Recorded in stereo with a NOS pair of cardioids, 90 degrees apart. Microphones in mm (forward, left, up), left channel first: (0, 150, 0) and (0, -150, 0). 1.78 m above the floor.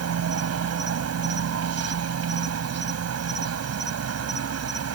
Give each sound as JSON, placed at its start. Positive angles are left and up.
{"t": 0.0, "sound": "an insect", "azimuth_deg": -55}